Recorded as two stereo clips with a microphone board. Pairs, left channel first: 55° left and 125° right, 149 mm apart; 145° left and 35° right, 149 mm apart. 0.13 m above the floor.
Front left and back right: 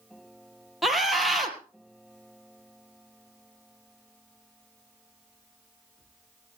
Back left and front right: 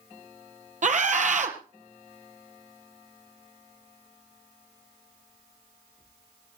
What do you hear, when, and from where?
0.8 s a scream: 35° right, 2.5 m